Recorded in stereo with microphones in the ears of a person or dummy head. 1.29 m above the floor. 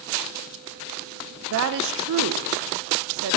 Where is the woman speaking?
70° right (ahead or behind), 0.6 m.